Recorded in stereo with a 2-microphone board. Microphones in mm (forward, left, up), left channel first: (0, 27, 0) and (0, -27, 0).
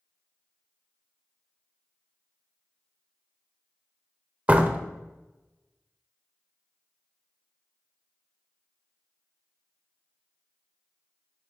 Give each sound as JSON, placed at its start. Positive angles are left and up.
{"t": 4.5, "sound": "a door slam", "side_deg": -25, "distance_m": 0.7}